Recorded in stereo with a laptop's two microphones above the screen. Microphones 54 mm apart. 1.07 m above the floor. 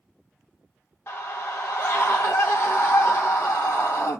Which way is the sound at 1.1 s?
35° left (ahead or behind).